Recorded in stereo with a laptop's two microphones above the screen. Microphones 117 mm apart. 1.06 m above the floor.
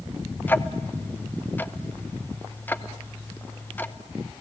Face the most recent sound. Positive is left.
turn(degrees=15)  # may be behind; listen again after turning